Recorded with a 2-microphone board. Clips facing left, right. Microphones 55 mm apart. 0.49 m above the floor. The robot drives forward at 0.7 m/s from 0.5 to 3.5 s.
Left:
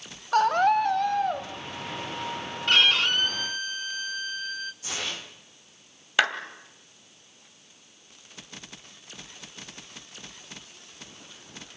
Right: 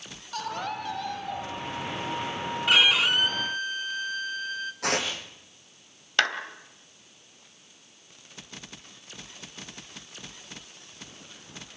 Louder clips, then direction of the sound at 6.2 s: Left 1 dB; 10° left (ahead or behind).